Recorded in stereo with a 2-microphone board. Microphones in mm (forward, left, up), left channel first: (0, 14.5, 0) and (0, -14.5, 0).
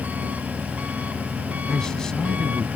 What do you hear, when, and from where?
0.0 s an engine running: 65° right (ahead or behind)
1.7 s a man speaking: 25° left (ahead or behind)